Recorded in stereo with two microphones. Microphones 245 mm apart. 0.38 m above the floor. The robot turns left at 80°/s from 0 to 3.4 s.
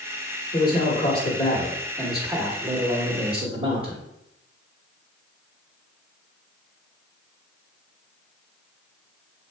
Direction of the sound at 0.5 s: 15° left (ahead or behind).